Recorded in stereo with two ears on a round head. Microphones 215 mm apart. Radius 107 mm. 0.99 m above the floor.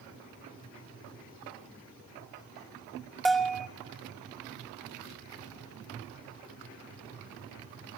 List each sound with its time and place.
3.2 s a bell: centre (ahead or behind), 1.2 m